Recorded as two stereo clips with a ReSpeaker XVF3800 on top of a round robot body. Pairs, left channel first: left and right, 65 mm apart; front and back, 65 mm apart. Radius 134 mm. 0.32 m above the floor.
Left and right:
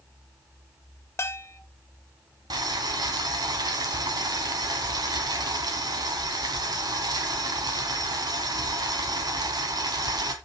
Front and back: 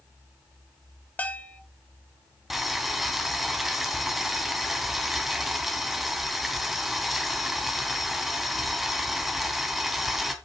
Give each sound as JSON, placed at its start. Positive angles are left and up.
{"t": 1.2, "sound": "a bell", "azimuth_deg": 55, "distance_m": 1.2}
{"t": 2.5, "sound": "boiling", "azimuth_deg": -95, "distance_m": 3.0}